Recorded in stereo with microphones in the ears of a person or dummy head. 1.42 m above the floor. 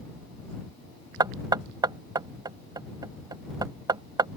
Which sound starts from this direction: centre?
Knocking, at 1.2 s.